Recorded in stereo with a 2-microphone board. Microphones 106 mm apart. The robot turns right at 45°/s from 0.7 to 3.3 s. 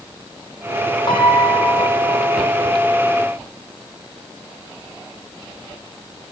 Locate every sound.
1.1 s a piano: 45° left, 5 m; by 2.3 s 100° left, 5 m